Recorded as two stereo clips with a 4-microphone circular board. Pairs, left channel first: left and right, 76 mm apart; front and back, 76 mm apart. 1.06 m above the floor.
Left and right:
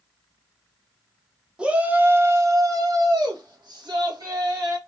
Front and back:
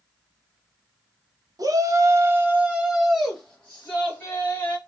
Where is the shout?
165° right, 0.9 m; by 4.8 s 65° right, 1.6 m.